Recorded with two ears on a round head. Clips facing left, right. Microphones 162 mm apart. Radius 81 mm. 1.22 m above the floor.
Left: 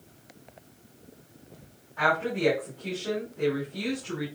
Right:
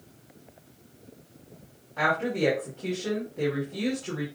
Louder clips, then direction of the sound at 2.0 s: Right 1 dB; 80° right.